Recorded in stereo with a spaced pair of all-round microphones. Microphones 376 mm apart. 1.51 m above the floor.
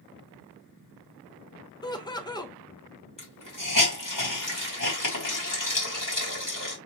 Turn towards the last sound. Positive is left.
turn(degrees=55)  # may be behind; listen again after turning